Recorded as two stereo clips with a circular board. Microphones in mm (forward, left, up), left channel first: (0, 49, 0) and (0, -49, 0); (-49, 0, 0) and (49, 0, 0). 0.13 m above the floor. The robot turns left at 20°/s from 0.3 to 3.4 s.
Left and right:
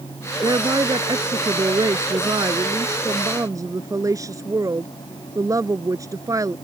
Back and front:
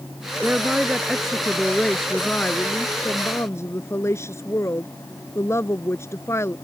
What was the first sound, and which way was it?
A woman speaking, 70° right.